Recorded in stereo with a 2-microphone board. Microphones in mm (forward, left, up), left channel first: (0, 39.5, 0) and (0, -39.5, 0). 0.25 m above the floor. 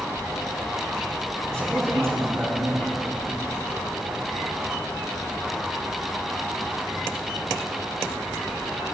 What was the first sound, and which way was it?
A man speaking, 40° right (ahead or behind).